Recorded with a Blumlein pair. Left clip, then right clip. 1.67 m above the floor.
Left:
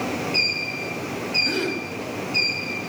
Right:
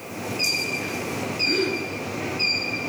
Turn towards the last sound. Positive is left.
turn(degrees=15)